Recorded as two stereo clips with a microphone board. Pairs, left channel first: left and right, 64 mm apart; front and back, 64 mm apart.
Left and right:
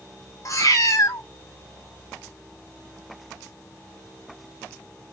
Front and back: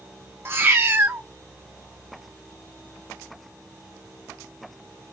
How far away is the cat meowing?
About 0.7 m.